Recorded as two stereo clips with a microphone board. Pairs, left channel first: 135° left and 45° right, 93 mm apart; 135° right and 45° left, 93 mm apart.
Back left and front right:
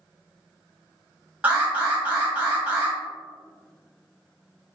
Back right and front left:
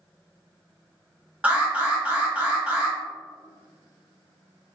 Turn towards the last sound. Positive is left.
turn(degrees=0)